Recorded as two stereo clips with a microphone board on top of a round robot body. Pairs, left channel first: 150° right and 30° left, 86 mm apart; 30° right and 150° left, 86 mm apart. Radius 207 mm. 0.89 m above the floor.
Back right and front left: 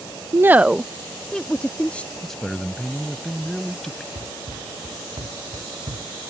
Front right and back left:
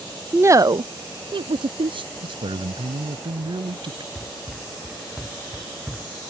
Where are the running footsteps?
60° left.